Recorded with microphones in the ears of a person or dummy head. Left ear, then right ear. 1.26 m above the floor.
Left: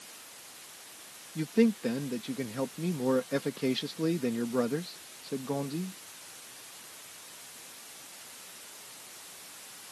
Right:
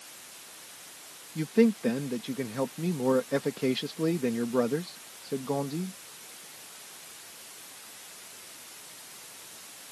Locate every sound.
1.4 s a man speaking: 10° right (ahead or behind)